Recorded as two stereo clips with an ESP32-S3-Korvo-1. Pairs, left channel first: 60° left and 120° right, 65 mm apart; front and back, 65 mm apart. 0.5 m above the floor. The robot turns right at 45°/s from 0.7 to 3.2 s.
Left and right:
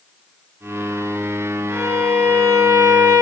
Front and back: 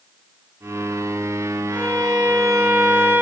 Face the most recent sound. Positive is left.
turn(degrees=-115)